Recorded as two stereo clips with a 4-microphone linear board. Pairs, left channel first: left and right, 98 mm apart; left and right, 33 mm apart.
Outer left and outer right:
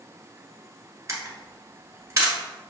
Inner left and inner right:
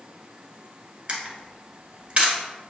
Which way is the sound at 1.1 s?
35° right (ahead or behind).